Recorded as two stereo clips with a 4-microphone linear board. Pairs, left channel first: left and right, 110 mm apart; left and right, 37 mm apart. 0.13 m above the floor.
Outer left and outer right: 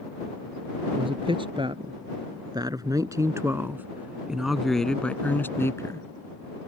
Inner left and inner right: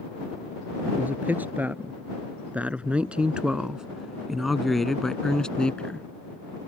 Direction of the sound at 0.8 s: 55° right (ahead or behind).